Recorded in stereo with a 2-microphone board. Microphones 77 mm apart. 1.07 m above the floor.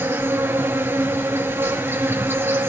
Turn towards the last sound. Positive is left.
turn(degrees=-30)  # may be behind; listen again after turning